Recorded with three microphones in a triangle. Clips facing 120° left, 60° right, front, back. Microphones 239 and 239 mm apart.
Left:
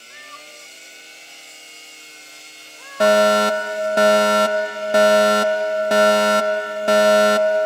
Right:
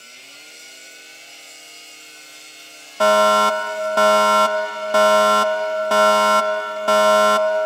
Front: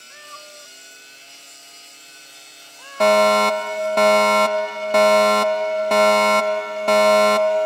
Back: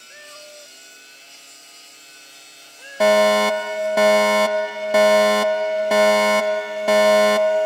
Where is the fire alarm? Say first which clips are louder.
Left 2 dB, even; 110° left.